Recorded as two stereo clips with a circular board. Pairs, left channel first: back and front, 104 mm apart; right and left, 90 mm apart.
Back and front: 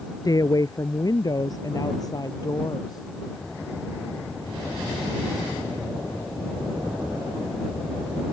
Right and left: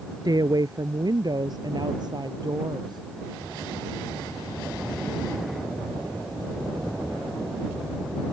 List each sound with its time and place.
0.2 s a woman speaking: 130° left